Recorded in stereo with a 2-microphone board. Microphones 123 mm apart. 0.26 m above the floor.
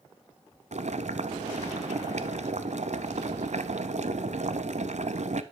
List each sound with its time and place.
0.7 s boiling: 70° right (ahead or behind), 0.8 m